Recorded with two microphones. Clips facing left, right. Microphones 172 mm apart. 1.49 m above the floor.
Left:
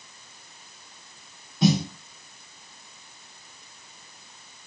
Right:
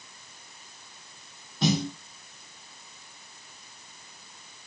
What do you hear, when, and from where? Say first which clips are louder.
1.6 s a snare drum: left 4 dB; centre (ahead or behind), 1.8 m